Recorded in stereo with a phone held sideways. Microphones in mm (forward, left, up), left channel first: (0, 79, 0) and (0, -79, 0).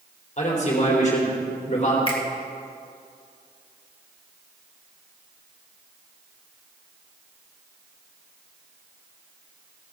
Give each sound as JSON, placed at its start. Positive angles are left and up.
{"t": 0.4, "sound": "a man speaking", "side_deg": 45, "distance_m": 3.5}
{"t": 2.1, "sound": "a finger snap", "side_deg": 35, "distance_m": 1.8}